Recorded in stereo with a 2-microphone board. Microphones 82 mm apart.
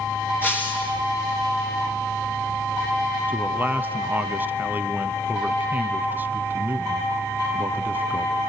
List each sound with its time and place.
0.4 s breaking glass: 25° left (ahead or behind), 7.5 m
3.3 s a man speaking: 25° right (ahead or behind), 1.2 m